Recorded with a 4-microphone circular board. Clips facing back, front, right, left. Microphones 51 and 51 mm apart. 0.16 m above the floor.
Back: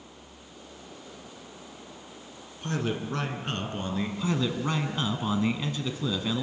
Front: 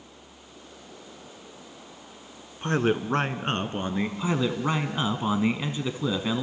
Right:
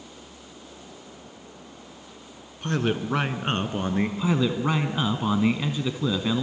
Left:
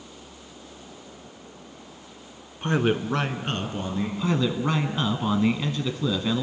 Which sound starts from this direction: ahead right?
A man speaking, at 4.2 s.